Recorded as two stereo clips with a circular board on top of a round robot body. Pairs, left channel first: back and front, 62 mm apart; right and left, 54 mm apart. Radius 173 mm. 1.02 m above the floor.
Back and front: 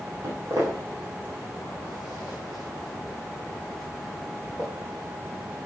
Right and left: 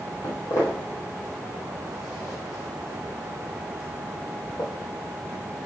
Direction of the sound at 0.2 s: 55° right.